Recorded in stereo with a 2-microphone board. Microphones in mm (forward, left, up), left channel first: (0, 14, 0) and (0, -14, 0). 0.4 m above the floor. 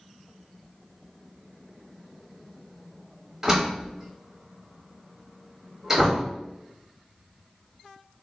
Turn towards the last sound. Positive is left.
turn(degrees=-15)  # may be behind; listen again after turning